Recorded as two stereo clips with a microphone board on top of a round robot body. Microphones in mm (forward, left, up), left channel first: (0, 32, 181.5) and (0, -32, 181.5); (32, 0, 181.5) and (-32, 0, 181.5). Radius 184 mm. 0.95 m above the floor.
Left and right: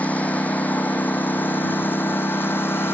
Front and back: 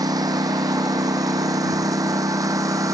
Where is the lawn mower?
160° left; by 2.9 s 145° left.